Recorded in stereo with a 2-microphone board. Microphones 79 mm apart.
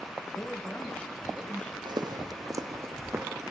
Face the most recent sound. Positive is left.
turn(degrees=-30)  # may be behind; listen again after turning